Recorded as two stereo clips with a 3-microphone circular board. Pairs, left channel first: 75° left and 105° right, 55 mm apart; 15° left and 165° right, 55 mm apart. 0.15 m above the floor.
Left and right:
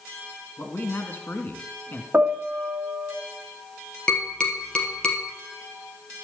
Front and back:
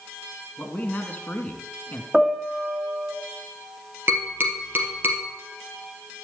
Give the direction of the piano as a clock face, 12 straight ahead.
3 o'clock.